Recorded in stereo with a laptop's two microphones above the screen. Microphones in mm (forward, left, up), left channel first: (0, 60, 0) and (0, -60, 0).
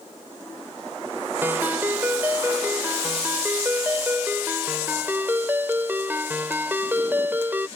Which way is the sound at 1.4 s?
15° right (ahead or behind).